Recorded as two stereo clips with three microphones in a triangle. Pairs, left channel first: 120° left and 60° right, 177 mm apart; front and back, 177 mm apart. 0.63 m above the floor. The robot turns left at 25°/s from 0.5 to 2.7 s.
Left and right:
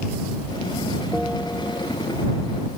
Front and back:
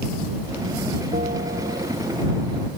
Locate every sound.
1.1 s a bell: 145° right; by 1.9 s 165° right